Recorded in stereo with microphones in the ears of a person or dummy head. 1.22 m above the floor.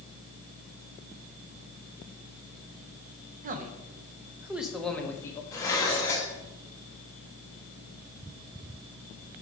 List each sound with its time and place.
3.4 s a man speaking: 45° right (ahead or behind), 0.9 m; by 5.4 s 15° left (ahead or behind), 1.1 m
5.5 s dishes clattering: 15° left (ahead or behind), 1.3 m